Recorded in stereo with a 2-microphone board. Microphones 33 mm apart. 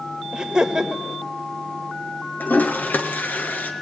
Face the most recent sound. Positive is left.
turn(degrees=80)